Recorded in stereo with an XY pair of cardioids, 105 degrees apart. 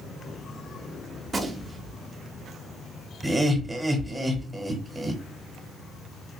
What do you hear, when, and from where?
1.2 s a gunshot: 25° right, 0.8 m
3.2 s laughter: 20° right, 1.0 m